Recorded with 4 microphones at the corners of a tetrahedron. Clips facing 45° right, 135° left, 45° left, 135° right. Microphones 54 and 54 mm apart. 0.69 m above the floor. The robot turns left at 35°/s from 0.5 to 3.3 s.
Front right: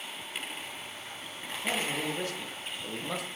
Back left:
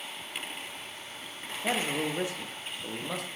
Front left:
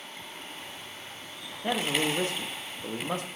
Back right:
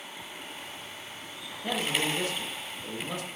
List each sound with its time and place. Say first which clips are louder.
1.6 s a man speaking: back left 2 dB, front left 2 dB; 100° left, 0.6 m; by 3.3 s 40° left, 0.6 m